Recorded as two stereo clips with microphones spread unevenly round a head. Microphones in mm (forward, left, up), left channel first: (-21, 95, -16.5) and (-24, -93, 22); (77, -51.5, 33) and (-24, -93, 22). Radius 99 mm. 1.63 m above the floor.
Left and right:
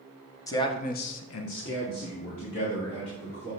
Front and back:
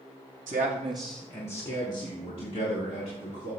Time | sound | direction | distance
0.5 | a man speaking | 165° left | 1.2 m